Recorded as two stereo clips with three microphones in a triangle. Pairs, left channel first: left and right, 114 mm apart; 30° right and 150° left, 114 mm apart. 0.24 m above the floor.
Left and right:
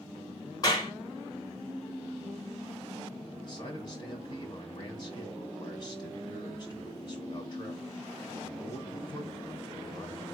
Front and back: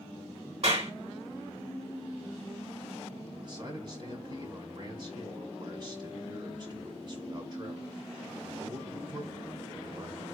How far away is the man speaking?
About 1.7 m.